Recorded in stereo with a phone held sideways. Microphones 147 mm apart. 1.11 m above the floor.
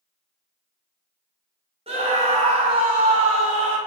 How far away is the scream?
About 1.4 m.